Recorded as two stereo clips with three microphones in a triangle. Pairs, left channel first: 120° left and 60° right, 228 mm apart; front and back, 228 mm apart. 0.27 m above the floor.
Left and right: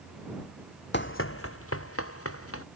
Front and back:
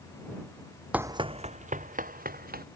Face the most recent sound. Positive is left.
turn(degrees=130)